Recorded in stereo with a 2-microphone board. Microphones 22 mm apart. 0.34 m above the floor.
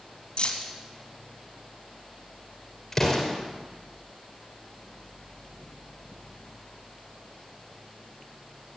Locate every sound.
0.4 s keys jangling: 45° left (ahead or behind), 1.5 m
2.9 s an explosion: 10° left (ahead or behind), 3 m